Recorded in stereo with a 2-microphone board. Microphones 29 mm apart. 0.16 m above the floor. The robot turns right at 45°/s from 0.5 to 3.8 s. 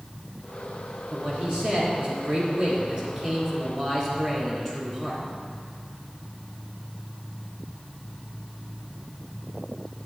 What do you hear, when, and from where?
1.1 s a man speaking: 110° right, 1.9 m; by 5.2 s 10° left, 1.9 m